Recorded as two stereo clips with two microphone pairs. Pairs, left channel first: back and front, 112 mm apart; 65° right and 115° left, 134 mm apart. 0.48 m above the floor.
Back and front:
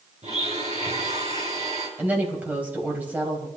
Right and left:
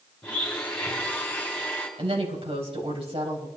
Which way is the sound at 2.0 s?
75° left.